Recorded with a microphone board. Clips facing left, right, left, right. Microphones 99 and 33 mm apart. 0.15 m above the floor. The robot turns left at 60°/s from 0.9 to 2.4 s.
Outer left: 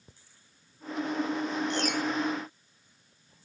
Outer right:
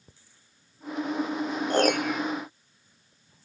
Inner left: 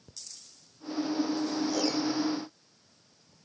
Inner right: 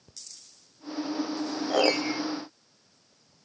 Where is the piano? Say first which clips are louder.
Outer right 6 dB, inner right 4 dB; 45° right; by 2.2 s 75° right.